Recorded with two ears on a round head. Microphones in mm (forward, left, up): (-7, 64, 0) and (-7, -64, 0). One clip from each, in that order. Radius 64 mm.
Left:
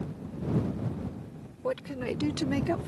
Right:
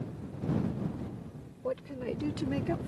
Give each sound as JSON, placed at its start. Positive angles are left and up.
{"t": 1.6, "sound": "a woman speaking", "side_deg": 40}